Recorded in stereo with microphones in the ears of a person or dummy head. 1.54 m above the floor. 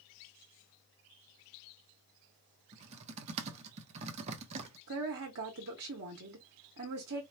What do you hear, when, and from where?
2.7 s typing on a keyboard: 35° right (ahead or behind), 0.8 m
4.9 s a woman speaking: 65° right (ahead or behind), 1.0 m